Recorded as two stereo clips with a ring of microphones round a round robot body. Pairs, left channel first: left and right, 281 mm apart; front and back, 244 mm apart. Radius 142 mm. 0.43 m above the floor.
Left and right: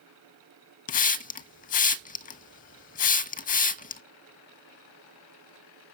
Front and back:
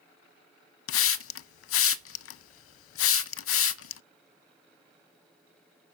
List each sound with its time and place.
0.9 s a hiss: 30° left, 0.5 m